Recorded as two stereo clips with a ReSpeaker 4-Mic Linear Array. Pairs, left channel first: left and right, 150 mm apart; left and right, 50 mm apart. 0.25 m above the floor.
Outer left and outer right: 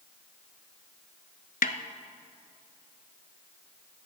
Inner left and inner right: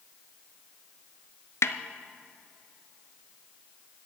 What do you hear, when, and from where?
1.6 s a snare drum: 75° left (ahead or behind), 0.7 m